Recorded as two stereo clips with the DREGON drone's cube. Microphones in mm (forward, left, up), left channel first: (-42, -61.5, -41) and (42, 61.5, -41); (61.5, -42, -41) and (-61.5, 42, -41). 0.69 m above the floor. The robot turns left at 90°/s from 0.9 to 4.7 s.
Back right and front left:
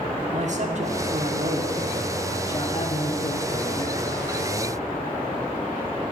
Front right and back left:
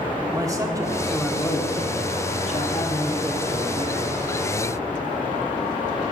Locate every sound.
0.3 s a man speaking: 80° left, 1.2 m; by 4.1 s 150° left, 1.2 m